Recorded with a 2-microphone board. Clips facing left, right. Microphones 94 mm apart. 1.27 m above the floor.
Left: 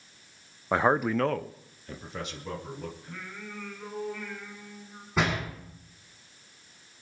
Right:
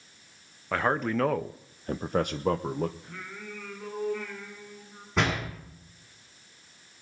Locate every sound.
0.7 s a man speaking: 20° left (ahead or behind), 0.8 m; by 2.9 s 55° right (ahead or behind), 1.2 m
3.0 s singing: 5° right (ahead or behind), 9 m
5.2 s a door slam: centre (ahead or behind), 8.5 m